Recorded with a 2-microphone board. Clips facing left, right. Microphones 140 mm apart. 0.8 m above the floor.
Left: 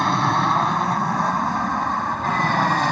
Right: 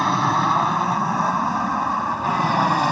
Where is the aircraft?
5° right (ahead or behind); by 2.9 s 10° right (ahead or behind).